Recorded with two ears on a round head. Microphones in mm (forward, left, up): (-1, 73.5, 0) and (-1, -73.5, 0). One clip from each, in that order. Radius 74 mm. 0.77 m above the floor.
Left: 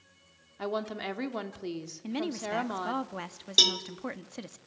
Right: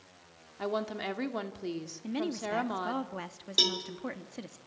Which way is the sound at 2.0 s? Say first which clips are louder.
Even; 15° left (ahead or behind).